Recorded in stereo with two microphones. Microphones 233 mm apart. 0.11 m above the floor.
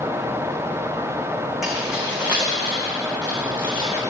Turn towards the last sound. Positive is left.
turn(degrees=-25)  # may be behind; listen again after turning